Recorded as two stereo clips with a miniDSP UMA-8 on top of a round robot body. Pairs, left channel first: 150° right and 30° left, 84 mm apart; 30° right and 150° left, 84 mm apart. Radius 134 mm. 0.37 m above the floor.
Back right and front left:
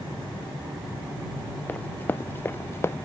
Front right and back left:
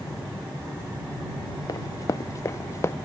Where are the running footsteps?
80° right; by 3.0 s 90° right.